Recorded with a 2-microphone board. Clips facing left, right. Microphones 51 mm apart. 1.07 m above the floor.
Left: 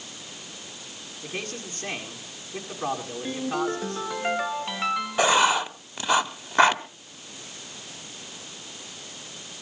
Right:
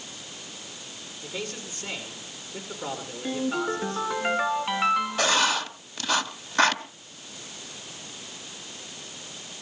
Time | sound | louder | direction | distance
1.2 | a man speaking | left 1 dB | 55° left (ahead or behind) | 7.5 m
3.2 | a ringtone | even | 10° right (ahead or behind) | 2.5 m
5.2 | writing | left 3 dB | 20° left (ahead or behind) | 0.9 m